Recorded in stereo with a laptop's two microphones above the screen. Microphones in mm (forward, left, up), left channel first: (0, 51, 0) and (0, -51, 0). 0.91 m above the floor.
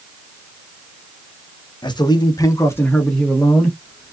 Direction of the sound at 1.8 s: 45° left (ahead or behind).